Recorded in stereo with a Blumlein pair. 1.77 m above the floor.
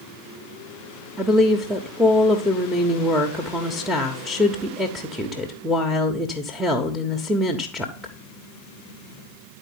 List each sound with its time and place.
1.2 s a woman speaking: straight ahead, 1.2 m